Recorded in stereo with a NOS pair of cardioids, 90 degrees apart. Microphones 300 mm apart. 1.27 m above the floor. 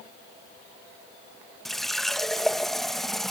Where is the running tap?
Straight ahead.